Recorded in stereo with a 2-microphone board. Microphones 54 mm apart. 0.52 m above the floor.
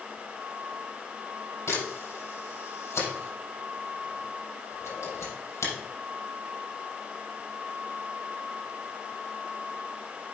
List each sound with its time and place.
1.7 s a camera shutter: 75° left (ahead or behind), 4.5 m